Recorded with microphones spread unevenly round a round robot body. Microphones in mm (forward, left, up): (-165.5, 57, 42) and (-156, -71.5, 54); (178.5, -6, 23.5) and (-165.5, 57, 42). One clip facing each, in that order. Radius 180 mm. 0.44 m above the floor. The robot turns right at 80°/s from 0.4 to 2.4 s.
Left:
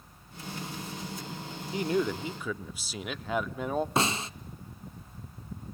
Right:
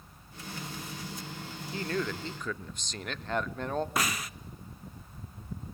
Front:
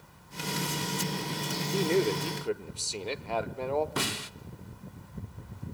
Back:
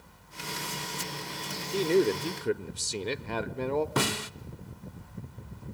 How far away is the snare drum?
About 0.6 m.